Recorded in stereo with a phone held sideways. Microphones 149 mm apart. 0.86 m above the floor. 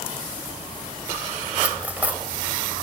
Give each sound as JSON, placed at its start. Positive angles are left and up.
{"t": 1.6, "sound": "cutlery clinking", "side_deg": -10, "distance_m": 2.0}